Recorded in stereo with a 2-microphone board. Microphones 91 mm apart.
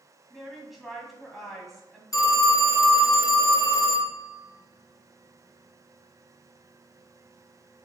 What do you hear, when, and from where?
0.3 s a woman speaking: centre (ahead or behind), 2 m
2.1 s a phone ringing: 40° left (ahead or behind), 1.8 m